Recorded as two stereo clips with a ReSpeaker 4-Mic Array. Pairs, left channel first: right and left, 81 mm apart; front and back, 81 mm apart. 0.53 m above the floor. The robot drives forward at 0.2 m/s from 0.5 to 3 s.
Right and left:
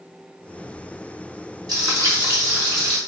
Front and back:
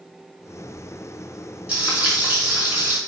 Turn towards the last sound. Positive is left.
turn(degrees=120)